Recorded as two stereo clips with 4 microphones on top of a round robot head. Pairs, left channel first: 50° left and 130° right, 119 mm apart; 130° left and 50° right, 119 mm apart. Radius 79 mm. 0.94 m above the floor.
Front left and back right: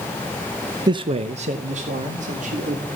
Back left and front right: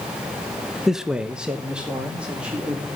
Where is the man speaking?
135° right, 0.6 m; by 2.9 s 130° right, 2.5 m.